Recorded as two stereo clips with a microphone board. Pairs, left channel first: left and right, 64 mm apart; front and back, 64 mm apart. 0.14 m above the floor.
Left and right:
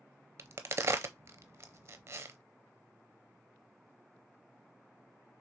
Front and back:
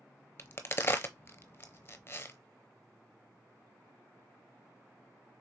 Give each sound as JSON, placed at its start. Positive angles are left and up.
{"t": 0.4, "sound": "a crack", "azimuth_deg": -50, "distance_m": 0.7}